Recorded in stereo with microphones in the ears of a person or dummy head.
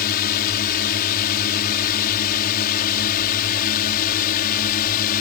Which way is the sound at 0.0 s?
50° left (ahead or behind).